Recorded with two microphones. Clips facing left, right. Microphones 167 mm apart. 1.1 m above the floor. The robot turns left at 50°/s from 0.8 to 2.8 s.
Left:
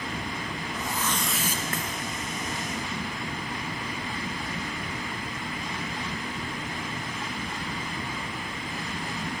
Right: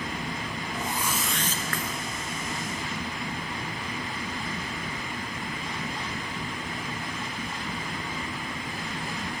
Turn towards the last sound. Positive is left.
turn(degrees=105)